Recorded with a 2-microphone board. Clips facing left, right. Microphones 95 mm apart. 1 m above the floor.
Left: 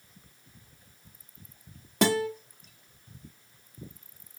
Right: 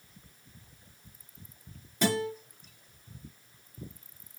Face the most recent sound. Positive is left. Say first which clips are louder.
# left 4 dB
turn(degrees=65)  # may be behind; listen again after turning